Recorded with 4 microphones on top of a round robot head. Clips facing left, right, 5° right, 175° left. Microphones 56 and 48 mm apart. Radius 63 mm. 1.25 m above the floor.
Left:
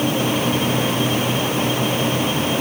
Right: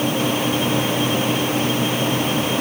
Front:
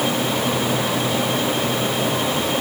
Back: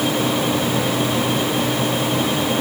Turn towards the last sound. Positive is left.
No sound to turn to.